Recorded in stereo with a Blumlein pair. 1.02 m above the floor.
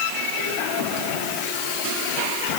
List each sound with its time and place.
Only background noise.